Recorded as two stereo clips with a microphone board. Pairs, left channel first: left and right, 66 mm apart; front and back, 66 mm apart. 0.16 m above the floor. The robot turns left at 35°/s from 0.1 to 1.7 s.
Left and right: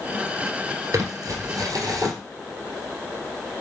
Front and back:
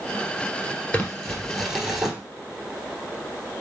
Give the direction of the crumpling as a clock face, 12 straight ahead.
2 o'clock.